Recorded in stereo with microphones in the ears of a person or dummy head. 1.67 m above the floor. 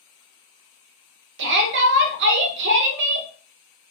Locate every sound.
1.4 s a shout: 60° right (ahead or behind), 0.8 m